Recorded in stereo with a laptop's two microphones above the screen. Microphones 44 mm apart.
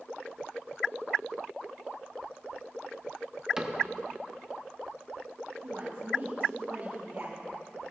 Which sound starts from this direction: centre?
A cupboard door, at 3.6 s.